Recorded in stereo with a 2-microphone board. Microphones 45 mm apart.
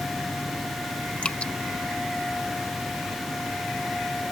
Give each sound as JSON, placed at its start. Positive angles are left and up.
{"t": 1.2, "sound": "dripping", "side_deg": 25}